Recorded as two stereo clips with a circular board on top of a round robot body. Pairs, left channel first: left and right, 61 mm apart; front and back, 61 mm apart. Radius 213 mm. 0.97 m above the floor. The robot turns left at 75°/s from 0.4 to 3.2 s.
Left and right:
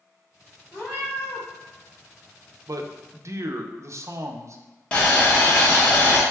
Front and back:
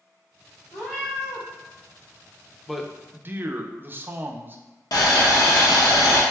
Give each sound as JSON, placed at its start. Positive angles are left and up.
{"t": 0.7, "sound": "a cat meowing", "azimuth_deg": 125, "distance_m": 0.9}
{"t": 2.7, "sound": "a man speaking", "azimuth_deg": -85, "distance_m": 0.5}
{"t": 4.9, "sound": "boiling", "azimuth_deg": 15, "distance_m": 0.7}